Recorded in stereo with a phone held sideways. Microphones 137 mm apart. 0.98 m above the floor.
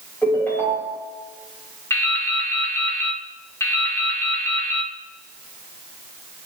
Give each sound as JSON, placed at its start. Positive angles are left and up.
{"t": 0.2, "sound": "a ringtone", "side_deg": 15, "distance_m": 4.0}
{"t": 1.9, "sound": "dripping", "side_deg": 20, "distance_m": 1.3}